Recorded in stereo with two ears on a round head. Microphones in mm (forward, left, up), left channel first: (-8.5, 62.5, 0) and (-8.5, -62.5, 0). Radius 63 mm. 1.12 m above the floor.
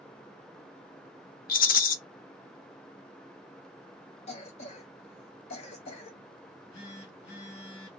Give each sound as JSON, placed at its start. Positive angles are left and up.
{"t": 1.5, "sound": "a rattle", "side_deg": 70, "distance_m": 0.6}
{"t": 4.3, "sound": "a cough", "side_deg": 50, "distance_m": 1.1}
{"t": 6.4, "sound": "a phone buzzing", "side_deg": 50, "distance_m": 1.7}